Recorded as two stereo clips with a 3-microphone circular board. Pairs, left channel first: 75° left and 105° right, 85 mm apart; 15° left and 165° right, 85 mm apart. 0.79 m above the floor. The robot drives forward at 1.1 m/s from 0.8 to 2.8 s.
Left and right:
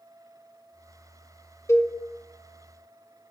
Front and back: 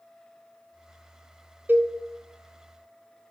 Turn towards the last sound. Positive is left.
turn(degrees=160)